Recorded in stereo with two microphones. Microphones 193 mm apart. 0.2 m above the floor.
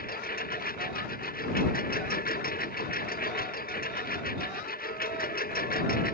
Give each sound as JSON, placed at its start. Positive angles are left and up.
{"t": 0.0, "sound": "a lawn mower", "side_deg": 50}